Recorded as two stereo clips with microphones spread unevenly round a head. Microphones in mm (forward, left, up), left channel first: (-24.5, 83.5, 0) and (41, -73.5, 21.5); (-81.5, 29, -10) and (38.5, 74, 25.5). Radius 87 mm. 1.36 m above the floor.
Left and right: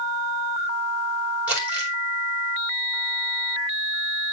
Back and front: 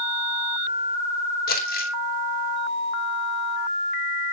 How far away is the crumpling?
About 3 m.